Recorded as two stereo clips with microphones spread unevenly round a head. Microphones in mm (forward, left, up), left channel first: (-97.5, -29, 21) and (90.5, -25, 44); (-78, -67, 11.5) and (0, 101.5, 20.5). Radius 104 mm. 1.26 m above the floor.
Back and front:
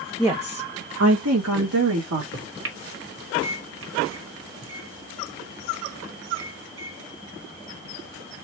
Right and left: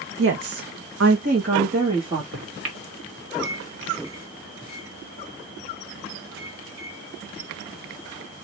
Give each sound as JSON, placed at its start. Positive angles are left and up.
{"t": 0.2, "sound": "a woman speaking", "azimuth_deg": 85, "distance_m": 0.8}
{"t": 2.3, "sound": "a microwave", "azimuth_deg": 35, "distance_m": 1.4}